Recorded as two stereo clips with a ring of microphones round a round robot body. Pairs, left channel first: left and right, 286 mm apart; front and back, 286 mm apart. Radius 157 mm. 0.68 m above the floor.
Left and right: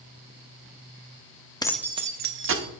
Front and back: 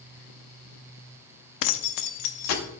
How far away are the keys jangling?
About 0.6 m.